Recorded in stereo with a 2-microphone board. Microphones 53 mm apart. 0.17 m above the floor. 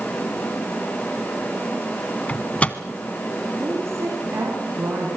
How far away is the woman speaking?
About 9.5 m.